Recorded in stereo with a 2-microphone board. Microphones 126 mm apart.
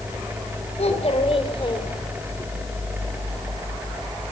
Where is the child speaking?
60° left (ahead or behind), 3.5 m; by 2.5 s 25° left (ahead or behind), 3 m.